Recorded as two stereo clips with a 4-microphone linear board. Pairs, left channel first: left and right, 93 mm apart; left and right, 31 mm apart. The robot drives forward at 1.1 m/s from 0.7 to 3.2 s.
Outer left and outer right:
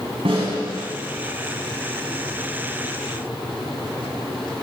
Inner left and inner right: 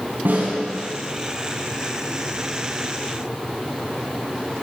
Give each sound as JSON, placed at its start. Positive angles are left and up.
{"t": 0.2, "sound": "a snare drum", "side_deg": -80, "distance_m": 5.0}